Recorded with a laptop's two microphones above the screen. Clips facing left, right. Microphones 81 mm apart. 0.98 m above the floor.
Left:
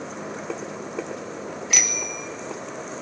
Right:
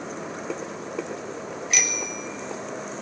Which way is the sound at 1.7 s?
80° left.